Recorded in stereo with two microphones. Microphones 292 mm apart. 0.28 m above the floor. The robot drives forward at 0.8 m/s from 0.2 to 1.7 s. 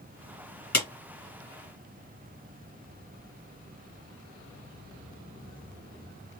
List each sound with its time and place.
0.7 s a clap: 70° left (ahead or behind), 2.5 m